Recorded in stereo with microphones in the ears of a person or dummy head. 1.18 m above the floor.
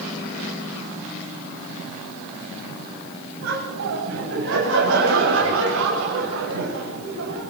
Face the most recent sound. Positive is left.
turn(degrees=-70)  # may be behind; listen again after turning